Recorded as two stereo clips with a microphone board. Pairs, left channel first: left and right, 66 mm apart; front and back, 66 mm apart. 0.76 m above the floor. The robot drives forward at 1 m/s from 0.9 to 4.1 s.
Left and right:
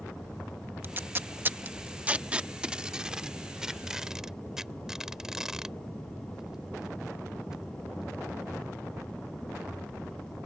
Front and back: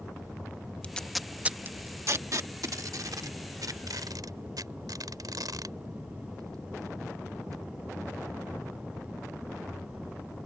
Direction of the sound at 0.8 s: 60° right.